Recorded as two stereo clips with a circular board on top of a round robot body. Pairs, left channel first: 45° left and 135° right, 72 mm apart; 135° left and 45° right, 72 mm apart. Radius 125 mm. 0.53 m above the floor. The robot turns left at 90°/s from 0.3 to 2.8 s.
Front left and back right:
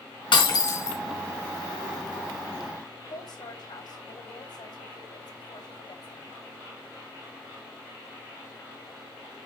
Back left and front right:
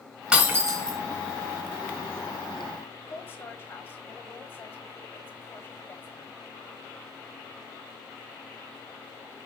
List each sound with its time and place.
0.3 s breaking glass: 35° left, 3 m; by 1.0 s 25° right, 3 m
3.0 s a woman speaking: 70° left, 3 m